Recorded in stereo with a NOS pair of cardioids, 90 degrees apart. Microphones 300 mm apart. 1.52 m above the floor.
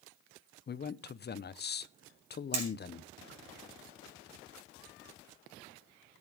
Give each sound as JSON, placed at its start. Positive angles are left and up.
{"t": 0.7, "sound": "a man speaking", "azimuth_deg": 35, "distance_m": 0.9}
{"t": 2.5, "sound": "hammering", "azimuth_deg": -55, "distance_m": 5.5}